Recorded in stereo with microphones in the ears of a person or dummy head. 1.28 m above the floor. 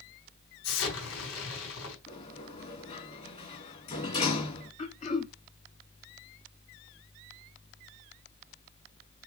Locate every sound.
0.6 s an explosion: 85° left, 3.5 m
2.1 s a sliding door: 35° left (ahead or behind), 3 m
4.8 s throat clearing: 35° left (ahead or behind), 1.4 m